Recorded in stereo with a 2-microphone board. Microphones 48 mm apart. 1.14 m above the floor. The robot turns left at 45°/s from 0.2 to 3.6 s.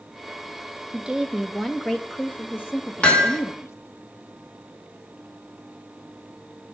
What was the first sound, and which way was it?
A woman speaking, 155° right.